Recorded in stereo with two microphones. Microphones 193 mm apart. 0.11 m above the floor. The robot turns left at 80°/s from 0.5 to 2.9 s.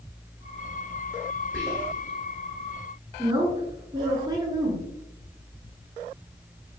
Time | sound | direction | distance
1.5 | whispering | 15° left (ahead or behind) | 2.0 m
3.2 | a woman speaking | 20° right (ahead or behind) | 1.3 m